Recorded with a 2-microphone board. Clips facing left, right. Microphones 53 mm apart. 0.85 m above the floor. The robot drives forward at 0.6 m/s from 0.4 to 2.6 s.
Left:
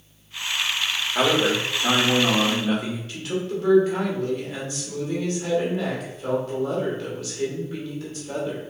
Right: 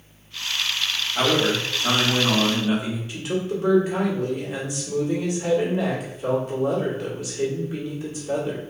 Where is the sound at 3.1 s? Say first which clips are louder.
Right 2 dB; 15° right (ahead or behind), 2.0 m.